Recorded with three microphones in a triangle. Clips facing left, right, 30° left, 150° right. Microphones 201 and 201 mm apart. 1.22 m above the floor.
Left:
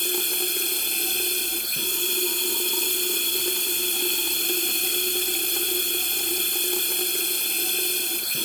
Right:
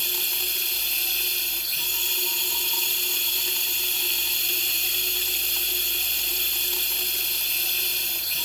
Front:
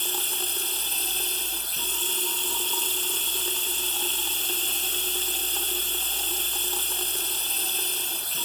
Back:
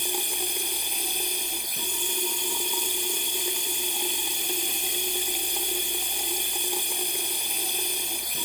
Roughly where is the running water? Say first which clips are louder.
Left 9 dB, back 3 dB; behind left.